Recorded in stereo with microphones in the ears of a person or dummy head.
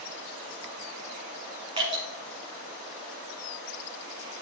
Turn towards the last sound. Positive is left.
turn(degrees=-25)  # may be behind; listen again after turning